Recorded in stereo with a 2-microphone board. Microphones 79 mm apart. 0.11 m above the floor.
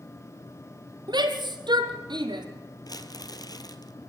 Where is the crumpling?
55° left (ahead or behind), 1.5 m.